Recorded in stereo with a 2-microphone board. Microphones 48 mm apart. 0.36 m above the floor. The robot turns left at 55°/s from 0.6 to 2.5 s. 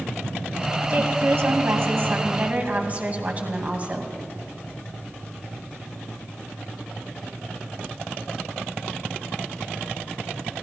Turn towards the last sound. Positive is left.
turn(degrees=-140)